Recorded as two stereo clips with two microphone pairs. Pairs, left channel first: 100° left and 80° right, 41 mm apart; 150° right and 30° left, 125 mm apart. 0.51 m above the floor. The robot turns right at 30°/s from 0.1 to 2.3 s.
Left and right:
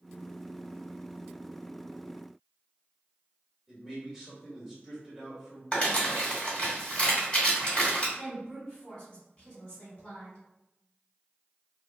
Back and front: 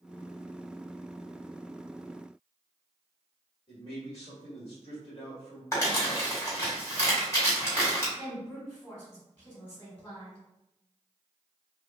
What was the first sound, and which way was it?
A man speaking, 160° right.